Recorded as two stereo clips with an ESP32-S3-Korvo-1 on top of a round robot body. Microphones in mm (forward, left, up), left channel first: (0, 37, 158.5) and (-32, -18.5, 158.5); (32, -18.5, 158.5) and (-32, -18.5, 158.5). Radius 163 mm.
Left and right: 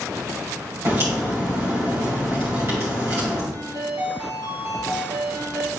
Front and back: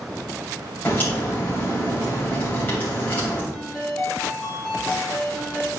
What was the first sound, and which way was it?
A crack, 65° right.